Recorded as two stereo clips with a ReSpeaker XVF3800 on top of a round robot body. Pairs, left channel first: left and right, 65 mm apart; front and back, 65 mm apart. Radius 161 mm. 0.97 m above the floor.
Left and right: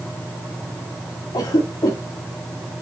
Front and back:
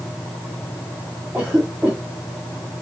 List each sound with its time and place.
1.3 s a cough: 105° left, 3 m